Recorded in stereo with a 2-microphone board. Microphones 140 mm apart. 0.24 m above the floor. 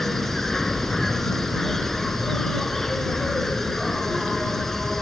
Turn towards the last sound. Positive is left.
turn(degrees=0)  # may be behind; listen again after turning